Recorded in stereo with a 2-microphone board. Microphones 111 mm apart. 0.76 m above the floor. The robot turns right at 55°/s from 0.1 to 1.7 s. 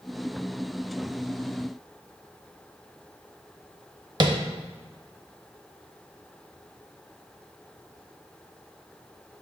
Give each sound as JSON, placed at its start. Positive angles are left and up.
{"t": 4.2, "sound": "tapping", "side_deg": -40, "distance_m": 0.7}